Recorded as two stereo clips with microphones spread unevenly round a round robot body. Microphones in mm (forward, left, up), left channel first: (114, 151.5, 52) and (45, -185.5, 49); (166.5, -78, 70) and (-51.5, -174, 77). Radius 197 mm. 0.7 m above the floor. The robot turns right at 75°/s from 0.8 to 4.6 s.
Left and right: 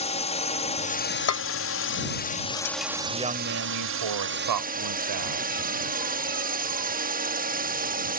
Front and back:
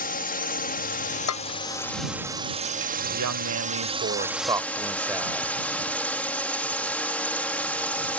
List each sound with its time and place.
0.0 s a drone: 20° left; by 8.2 s 55° right
1.3 s dishes clattering: 35° left; by 3.0 s 165° left
3.1 s a woman speaking: 170° left; by 5.5 s 75° right